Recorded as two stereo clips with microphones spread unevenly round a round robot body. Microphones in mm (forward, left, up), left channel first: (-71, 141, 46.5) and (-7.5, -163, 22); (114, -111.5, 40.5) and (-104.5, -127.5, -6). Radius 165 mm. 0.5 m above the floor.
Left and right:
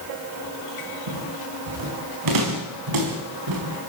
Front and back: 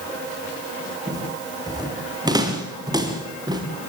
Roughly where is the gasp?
I don't hear a gasp.